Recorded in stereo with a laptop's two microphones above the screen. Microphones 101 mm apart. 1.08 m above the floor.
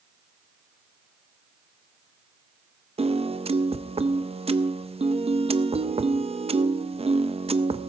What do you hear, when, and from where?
3.0 s a piano: 80° right, 0.5 m